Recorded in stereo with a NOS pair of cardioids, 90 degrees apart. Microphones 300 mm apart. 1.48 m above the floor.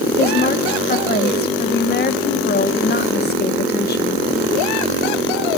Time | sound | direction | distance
0.2 | a woman speaking | 30° left | 1.7 m